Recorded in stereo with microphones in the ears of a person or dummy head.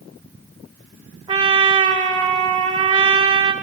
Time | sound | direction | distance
1.3 | a trumpet | 25° right (ahead or behind) | 1.5 m